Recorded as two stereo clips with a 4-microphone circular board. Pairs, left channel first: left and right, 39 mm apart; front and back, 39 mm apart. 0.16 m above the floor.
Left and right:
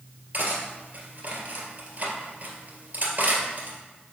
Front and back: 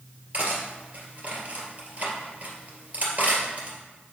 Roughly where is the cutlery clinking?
Behind right.